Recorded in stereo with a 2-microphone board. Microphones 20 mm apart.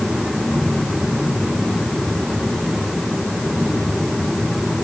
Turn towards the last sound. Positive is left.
No sound to turn to.